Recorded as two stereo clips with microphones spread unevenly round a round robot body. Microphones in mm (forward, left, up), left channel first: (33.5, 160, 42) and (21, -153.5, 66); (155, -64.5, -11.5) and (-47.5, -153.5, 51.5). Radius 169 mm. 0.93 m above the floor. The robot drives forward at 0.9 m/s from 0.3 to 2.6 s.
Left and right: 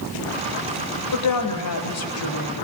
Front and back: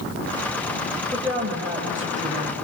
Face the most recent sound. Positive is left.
turn(degrees=140)